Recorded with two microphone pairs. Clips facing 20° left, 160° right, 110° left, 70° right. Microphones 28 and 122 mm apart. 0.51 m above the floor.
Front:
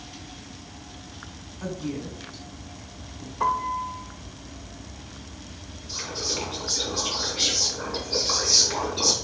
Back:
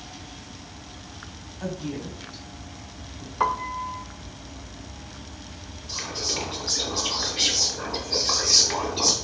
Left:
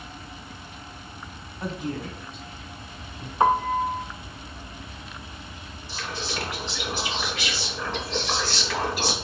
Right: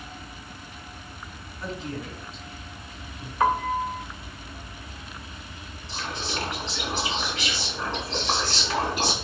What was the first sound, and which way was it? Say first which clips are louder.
A woman speaking: even, left 3 dB; 140° left.